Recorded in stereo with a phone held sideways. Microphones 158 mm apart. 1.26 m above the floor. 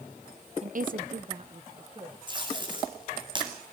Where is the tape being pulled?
30° right (ahead or behind), 9 m.